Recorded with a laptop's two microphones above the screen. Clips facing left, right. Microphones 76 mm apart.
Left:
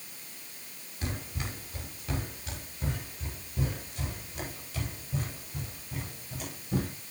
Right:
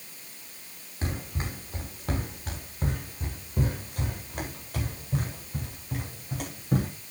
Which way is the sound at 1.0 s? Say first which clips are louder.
Right 3 dB; 30° right (ahead or behind).